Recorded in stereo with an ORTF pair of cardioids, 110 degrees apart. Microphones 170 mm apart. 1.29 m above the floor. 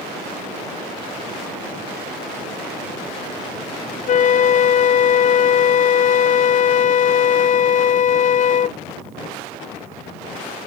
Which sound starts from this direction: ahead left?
A flute, at 4.1 s.